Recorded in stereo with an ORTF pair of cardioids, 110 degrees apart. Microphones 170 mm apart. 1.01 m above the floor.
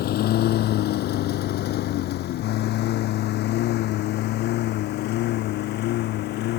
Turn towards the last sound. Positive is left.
turn(degrees=75)